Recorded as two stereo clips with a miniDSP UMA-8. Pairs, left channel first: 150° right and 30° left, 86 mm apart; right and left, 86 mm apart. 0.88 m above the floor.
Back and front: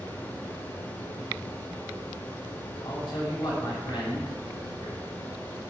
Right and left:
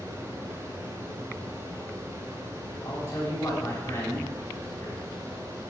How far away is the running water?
About 1.7 m.